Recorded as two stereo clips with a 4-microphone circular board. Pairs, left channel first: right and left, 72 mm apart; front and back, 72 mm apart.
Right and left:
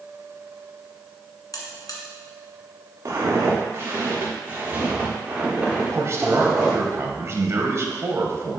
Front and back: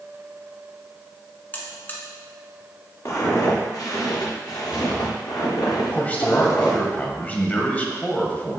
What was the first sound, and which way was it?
A buzzer, 65° right.